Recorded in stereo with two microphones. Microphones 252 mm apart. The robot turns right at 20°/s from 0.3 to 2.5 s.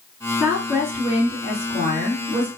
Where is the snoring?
I don't hear snoring.